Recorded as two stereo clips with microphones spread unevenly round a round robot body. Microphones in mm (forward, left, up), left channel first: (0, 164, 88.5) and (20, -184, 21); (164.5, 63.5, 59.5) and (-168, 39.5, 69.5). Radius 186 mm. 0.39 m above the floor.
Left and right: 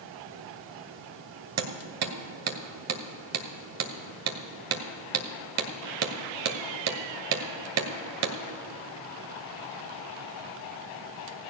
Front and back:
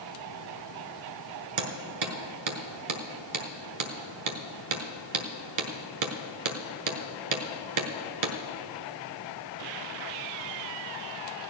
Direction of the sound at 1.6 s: 135° right.